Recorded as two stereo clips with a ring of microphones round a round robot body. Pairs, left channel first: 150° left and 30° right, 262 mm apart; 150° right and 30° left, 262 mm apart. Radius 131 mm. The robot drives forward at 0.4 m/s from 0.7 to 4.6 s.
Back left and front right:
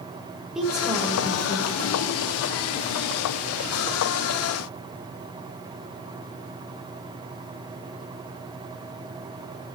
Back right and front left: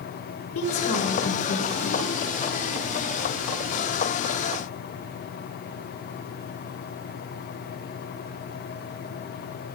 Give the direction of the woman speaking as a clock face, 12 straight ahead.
4 o'clock.